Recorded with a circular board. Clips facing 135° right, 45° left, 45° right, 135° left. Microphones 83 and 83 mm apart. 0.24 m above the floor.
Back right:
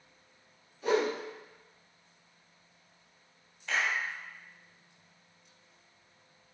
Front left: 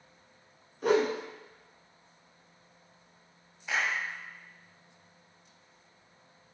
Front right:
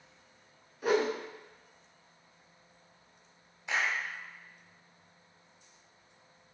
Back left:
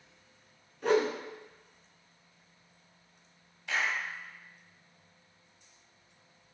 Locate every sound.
0.8 s a whoosh: 35° left, 0.8 m
3.7 s a clap: 15° right, 0.8 m